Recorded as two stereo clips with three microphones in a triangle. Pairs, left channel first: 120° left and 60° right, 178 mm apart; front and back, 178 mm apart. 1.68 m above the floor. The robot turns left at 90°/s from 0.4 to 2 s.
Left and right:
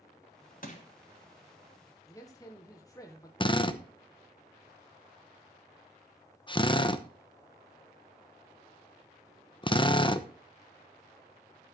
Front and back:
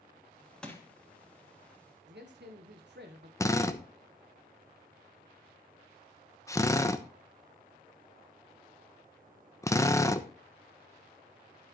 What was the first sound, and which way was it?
Crushing, 85° left.